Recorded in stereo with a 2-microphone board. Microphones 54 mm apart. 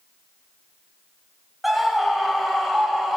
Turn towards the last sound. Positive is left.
turn(degrees=-5)  # may be behind; listen again after turning